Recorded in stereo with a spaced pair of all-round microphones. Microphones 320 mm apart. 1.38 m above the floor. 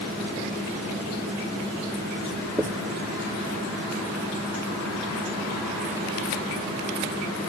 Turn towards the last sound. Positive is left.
turn(degrees=-10)  # may be behind; listen again after turning